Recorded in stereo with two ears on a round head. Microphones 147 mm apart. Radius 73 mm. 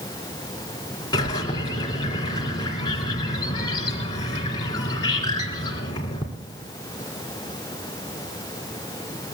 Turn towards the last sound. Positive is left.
turn(degrees=25)  # may be behind; listen again after turning